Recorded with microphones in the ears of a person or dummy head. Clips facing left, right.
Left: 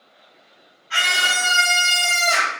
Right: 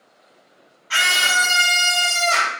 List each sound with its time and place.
0.9 s a scream: 65° right (ahead or behind), 1.3 m; by 2.5 s 20° left (ahead or behind), 1.3 m